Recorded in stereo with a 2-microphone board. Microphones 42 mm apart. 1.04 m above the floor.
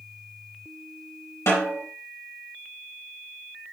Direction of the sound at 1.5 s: 75° left (ahead or behind).